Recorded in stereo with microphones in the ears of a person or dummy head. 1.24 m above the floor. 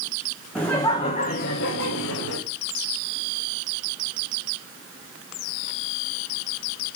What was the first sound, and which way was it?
Laughter, 5° left (ahead or behind).